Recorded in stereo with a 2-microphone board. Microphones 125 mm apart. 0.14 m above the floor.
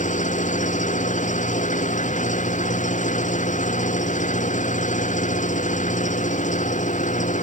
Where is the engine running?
85° left.